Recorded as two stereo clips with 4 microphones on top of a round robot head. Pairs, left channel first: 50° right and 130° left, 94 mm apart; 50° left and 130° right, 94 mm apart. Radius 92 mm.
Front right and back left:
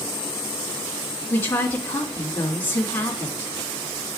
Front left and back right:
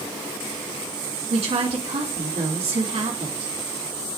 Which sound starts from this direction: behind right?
A woman speaking, at 1.3 s.